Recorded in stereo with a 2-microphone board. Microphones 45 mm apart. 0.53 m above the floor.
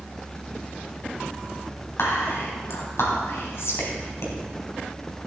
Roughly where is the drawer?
I don't hear a drawer.